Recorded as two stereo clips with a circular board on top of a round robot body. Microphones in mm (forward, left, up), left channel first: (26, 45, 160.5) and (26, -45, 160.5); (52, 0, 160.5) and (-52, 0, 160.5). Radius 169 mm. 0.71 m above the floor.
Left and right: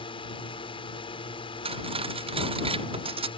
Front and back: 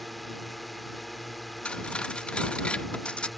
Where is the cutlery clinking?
80° right.